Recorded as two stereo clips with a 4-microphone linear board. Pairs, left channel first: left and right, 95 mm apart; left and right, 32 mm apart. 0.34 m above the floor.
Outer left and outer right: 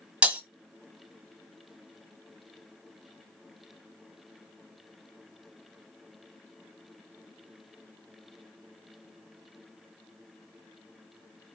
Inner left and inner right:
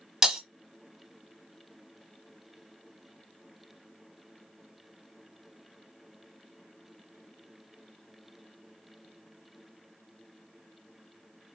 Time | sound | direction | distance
0.2 | breaking glass | 10° right (ahead or behind) | 0.6 m